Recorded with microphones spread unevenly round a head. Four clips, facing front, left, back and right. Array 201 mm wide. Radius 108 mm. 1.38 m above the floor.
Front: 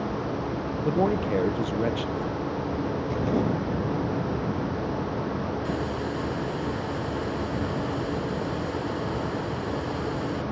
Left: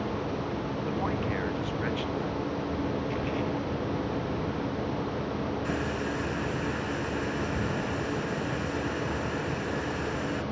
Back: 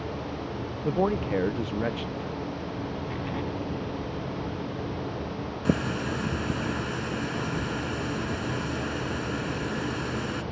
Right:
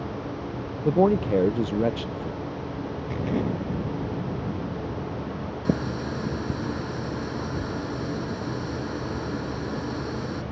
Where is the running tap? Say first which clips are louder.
Right 3 dB, back 1 dB; 130° right.